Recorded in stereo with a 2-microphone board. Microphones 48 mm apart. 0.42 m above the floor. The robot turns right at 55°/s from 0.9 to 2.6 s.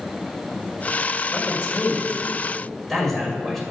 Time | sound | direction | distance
1.3 | a man speaking | 50° left (ahead or behind) | 1.8 m